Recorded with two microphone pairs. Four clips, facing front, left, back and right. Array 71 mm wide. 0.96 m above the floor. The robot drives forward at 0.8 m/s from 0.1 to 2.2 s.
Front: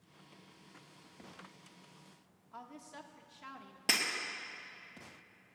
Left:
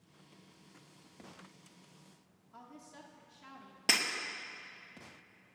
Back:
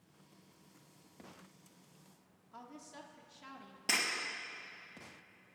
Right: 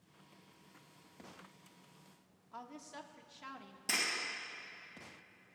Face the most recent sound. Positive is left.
turn(degrees=90)